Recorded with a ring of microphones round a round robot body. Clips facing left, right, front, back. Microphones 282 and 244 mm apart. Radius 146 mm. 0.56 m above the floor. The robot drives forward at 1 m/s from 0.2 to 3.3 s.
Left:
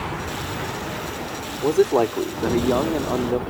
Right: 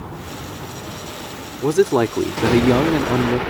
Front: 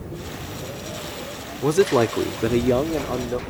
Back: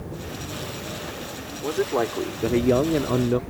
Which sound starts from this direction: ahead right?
A man speaking, at 1.6 s.